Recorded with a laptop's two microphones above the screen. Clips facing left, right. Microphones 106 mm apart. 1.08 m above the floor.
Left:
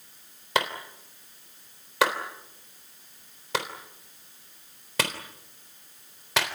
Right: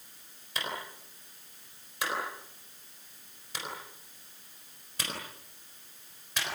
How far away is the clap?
About 3.5 m.